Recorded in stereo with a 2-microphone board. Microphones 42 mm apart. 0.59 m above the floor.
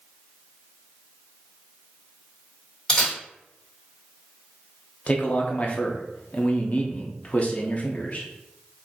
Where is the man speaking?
35° left (ahead or behind), 0.7 m.